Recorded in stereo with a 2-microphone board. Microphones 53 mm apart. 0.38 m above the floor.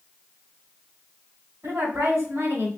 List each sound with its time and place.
1.6 s a woman speaking: 55° right (ahead or behind), 2.5 m